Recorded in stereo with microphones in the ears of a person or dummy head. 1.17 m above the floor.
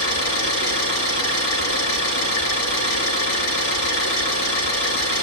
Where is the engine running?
75° left (ahead or behind), 6.5 m.